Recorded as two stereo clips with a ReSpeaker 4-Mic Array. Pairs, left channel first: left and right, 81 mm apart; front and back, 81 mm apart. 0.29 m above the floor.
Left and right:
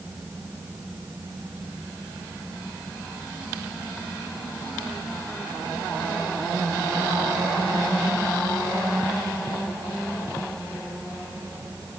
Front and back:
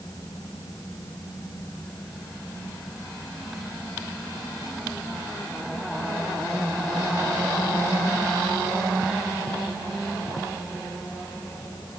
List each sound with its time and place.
Only background noise.